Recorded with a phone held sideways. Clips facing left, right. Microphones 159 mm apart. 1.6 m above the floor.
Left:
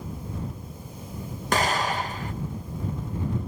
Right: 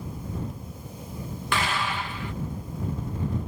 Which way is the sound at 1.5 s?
45° left (ahead or behind).